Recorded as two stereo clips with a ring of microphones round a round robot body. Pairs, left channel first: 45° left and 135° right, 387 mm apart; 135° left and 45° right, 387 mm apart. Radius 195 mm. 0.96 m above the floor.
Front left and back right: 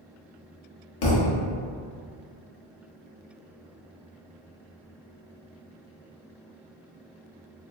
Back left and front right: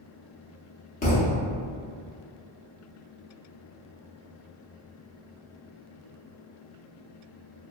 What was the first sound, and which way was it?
A thud, 65° left.